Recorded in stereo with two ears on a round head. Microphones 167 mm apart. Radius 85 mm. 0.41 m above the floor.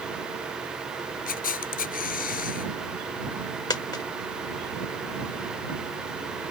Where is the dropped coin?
20° left (ahead or behind).